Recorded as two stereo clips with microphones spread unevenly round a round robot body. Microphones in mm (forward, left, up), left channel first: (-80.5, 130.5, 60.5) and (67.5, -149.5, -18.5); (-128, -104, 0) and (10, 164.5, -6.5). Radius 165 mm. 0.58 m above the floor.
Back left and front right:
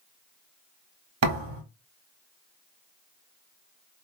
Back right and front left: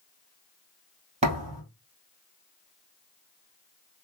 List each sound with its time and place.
1.2 s a thud: 10° right, 2.0 m